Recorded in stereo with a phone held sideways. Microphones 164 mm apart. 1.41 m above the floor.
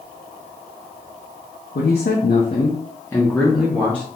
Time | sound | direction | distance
1.8 | a man speaking | 75° left (ahead or behind) | 0.6 m